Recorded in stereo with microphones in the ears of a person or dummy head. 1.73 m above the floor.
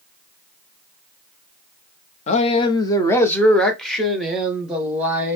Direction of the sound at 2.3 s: 35° left (ahead or behind).